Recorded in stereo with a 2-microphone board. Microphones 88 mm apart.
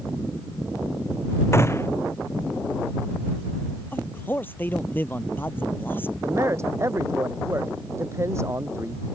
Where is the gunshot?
30° left (ahead or behind).